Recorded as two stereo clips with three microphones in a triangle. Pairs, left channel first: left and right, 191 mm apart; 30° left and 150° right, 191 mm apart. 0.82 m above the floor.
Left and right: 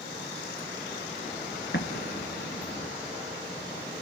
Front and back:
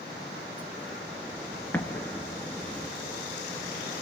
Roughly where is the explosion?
Left.